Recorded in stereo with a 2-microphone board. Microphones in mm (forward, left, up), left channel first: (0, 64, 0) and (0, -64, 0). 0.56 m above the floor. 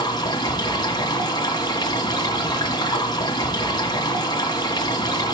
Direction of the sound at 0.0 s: 30° left (ahead or behind).